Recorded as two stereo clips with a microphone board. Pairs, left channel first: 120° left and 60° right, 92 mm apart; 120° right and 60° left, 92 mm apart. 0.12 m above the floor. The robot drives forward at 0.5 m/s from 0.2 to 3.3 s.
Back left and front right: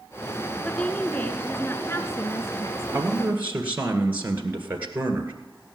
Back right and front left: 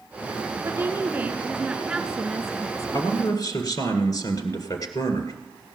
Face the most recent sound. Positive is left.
turn(degrees=-125)